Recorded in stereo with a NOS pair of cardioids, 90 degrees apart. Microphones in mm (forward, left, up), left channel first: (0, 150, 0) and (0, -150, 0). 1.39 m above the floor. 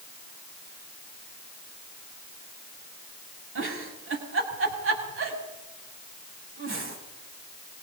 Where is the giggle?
45° right, 6.5 m.